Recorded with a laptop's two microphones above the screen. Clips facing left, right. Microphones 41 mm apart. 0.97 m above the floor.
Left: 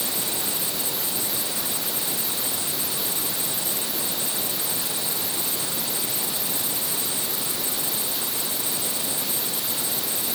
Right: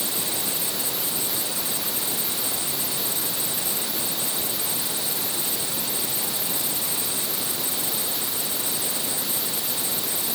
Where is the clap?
No clap in this recording.